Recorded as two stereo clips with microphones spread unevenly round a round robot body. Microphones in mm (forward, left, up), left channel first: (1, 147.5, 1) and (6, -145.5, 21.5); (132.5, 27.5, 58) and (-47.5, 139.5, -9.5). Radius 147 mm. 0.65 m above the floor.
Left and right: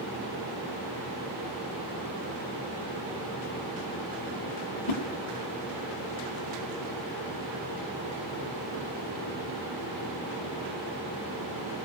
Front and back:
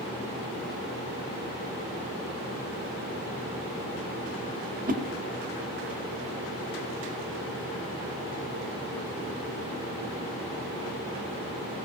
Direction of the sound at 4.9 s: 105° left.